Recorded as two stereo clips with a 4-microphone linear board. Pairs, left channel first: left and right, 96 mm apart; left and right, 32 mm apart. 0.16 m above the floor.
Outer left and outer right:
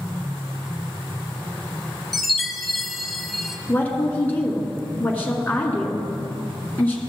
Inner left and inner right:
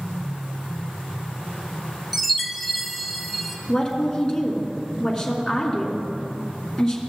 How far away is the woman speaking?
About 1.9 m.